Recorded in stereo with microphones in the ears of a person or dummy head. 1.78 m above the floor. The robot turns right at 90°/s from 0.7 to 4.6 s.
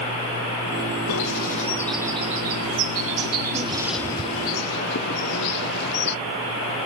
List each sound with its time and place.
1.1 s a bird: 70° left (ahead or behind), 0.6 m; by 6.2 s 60° left (ahead or behind), 0.6 m